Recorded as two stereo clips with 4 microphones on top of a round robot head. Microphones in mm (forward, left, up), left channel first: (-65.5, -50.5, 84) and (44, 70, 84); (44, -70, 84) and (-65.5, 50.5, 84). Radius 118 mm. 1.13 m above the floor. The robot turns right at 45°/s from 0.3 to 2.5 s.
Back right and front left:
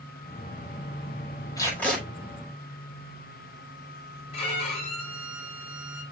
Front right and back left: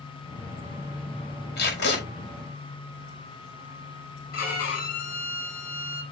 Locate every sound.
1.6 s tape being pulled: 65° right, 5.5 m; by 2.0 s 40° right, 5.5 m
4.3 s a violin: 80° right, 6 m